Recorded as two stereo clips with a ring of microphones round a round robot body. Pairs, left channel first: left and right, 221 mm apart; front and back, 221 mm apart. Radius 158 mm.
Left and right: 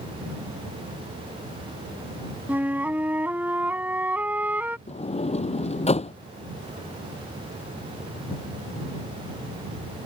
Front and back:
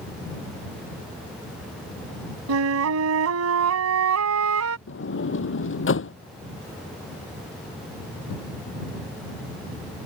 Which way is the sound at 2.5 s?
175° right.